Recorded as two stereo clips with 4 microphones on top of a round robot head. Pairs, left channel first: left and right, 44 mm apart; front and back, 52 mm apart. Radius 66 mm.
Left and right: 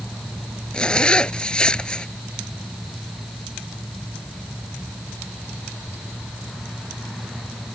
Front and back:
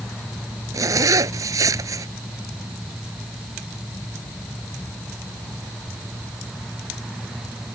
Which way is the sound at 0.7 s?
165° left.